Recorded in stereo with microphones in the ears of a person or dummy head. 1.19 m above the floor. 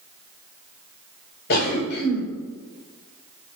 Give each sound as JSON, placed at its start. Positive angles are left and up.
{"t": 1.5, "sound": "a cough", "side_deg": 55, "distance_m": 4.5}